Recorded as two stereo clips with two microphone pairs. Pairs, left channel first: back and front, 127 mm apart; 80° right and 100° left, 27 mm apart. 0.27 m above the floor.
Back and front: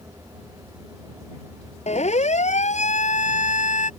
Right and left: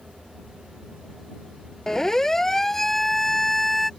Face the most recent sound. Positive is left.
turn(degrees=-165)